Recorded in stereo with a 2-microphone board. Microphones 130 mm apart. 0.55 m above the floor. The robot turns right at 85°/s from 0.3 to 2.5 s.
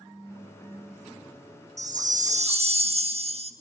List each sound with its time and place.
1.8 s a chime: 115° right, 0.7 m; by 3.5 s 55° right, 0.7 m